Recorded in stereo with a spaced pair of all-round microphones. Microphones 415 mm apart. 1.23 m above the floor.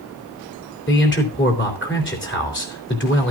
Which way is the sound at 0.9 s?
25° left (ahead or behind).